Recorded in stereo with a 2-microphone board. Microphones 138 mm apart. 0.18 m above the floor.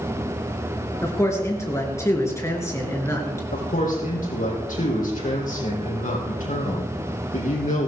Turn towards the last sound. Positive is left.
turn(degrees=75)  # may be behind; listen again after turning